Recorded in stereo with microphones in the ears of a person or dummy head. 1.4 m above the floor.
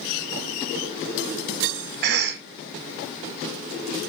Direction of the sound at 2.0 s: 50° right (ahead or behind).